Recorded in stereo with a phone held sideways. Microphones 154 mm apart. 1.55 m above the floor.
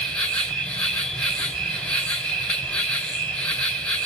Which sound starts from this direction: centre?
An insect, at 0.0 s.